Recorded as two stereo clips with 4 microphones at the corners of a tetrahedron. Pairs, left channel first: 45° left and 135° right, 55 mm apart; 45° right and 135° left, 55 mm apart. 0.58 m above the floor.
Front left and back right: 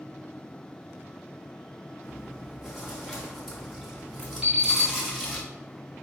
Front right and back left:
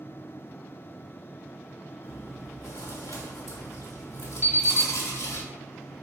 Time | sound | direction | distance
2.0 | chewing | 40° right | 1.0 m
4.4 | an alarm clock | 160° left | 2 m